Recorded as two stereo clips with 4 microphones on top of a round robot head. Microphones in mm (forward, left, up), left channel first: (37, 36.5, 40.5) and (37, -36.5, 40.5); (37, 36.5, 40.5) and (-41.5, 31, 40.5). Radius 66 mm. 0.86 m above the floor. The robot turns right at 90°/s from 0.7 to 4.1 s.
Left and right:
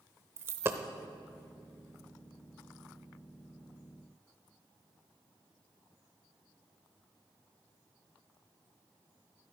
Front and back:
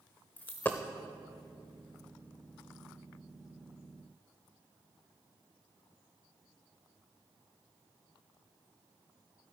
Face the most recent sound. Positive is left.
turn(degrees=-115)